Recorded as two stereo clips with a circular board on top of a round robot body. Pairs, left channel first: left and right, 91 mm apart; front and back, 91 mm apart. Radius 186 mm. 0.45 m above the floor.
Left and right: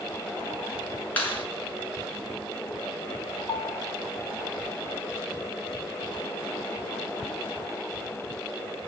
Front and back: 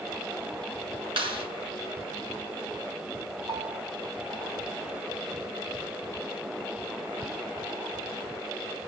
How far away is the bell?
About 6 m.